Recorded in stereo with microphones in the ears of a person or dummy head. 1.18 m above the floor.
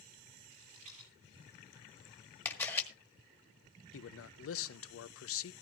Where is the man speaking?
65° left (ahead or behind), 0.5 m.